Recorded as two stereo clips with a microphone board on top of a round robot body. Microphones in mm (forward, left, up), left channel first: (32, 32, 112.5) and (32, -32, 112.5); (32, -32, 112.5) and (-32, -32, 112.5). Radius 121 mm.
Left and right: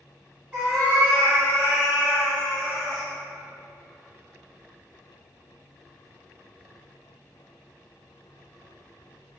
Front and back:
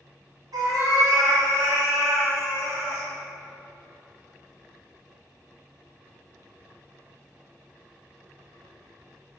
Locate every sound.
0.5 s a cat meowing: 160° right, 1.8 m; by 3.1 s 115° right, 1.5 m